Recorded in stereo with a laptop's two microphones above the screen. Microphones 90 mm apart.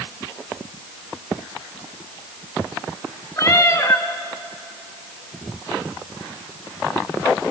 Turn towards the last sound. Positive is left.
turn(degrees=35)  # may be behind; listen again after turning